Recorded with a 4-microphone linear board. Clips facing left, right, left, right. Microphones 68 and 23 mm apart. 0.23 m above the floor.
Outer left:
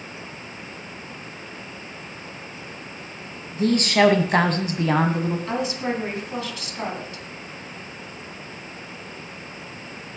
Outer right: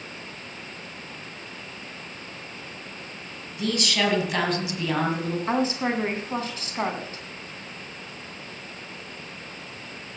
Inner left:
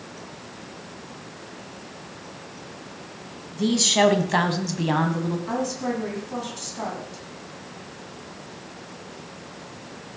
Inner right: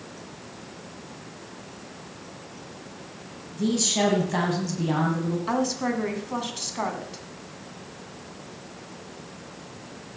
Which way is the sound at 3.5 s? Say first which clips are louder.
Outer left 7 dB, inner left 4 dB; 35° left (ahead or behind).